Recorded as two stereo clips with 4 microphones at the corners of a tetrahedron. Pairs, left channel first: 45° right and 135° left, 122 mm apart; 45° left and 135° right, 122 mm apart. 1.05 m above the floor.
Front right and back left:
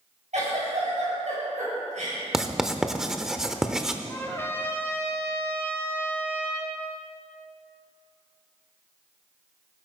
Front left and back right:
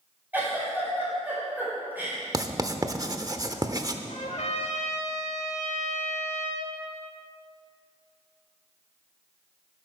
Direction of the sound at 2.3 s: 145° right.